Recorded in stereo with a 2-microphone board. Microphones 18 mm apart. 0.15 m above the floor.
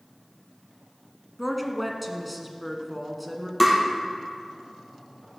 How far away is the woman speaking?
About 1.4 m.